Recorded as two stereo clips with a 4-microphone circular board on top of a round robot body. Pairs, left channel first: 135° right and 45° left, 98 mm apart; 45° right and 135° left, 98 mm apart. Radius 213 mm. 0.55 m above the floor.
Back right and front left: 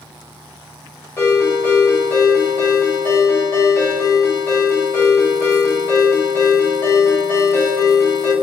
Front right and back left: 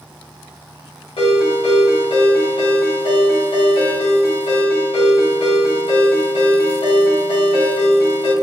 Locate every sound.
1.2 s a ringtone: 70° right, 1.7 m